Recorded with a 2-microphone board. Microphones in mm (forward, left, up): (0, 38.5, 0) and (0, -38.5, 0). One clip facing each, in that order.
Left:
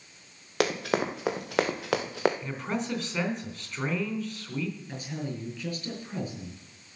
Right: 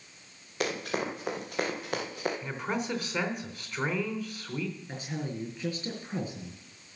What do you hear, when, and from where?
0.6 s running footsteps: 75° left (ahead or behind), 3.5 m; by 2.3 s 80° left, 2 m
2.4 s a man speaking: 5° right (ahead or behind), 3.5 m
4.9 s a woman speaking: 20° right (ahead or behind), 6 m